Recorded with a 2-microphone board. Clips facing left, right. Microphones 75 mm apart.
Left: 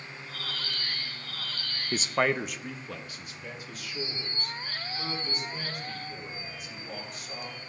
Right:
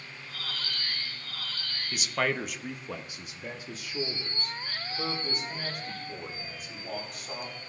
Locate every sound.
1.9 s a man speaking: 40° left (ahead or behind), 0.5 m; by 7.6 s 40° right (ahead or behind), 4.5 m